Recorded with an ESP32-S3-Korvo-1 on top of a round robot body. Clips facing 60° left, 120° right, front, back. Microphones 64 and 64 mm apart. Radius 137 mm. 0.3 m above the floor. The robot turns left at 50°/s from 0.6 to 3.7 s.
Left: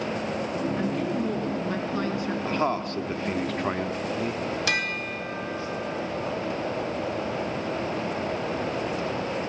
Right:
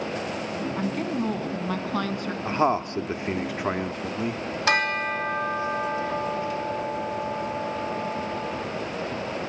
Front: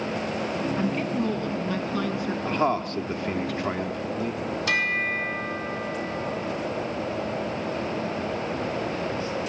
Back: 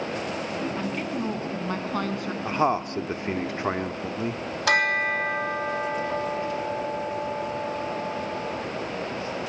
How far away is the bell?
About 2.5 m.